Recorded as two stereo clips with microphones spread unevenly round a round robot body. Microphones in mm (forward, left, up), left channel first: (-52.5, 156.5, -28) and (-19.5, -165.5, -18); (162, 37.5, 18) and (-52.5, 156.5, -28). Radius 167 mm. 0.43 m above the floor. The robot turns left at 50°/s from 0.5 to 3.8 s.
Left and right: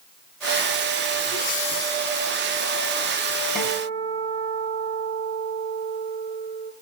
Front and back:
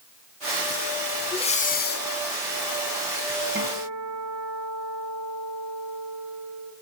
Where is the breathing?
50° left, 0.8 m; by 2.1 s 10° left, 0.8 m.